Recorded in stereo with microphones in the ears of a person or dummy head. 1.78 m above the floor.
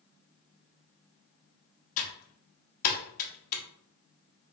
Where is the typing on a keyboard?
50° left (ahead or behind), 1.0 m.